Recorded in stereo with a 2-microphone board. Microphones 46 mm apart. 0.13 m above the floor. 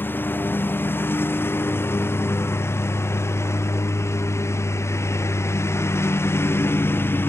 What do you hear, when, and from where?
0.0 s a lawn mower: 50° left (ahead or behind); by 7.3 s 55° left (ahead or behind)